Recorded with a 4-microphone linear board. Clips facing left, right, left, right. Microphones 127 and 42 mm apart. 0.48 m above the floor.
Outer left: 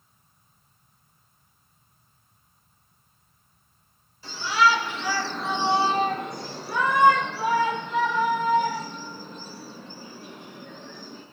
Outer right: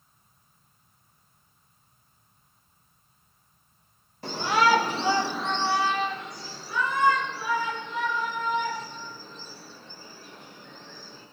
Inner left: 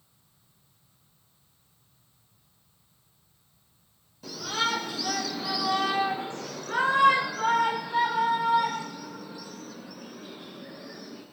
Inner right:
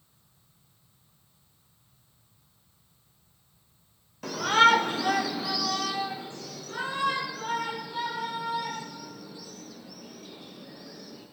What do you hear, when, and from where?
4.2 s a shout: 60° right (ahead or behind), 1.7 m; by 11.2 s 80° left, 7 m